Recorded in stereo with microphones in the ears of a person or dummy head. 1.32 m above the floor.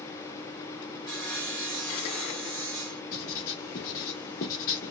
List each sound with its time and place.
1.1 s sawing: 5° left (ahead or behind), 1.4 m
3.1 s writing: 45° left (ahead or behind), 1.5 m